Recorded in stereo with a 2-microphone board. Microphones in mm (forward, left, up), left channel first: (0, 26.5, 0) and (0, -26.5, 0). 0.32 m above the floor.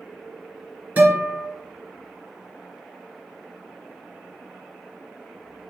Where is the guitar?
35° right (ahead or behind), 2.5 m.